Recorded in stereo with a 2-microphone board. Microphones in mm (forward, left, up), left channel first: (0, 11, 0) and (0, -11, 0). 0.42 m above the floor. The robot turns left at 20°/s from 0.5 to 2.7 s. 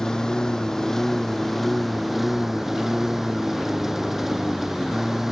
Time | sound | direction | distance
0.0 | a lawn mower | 30° left | ?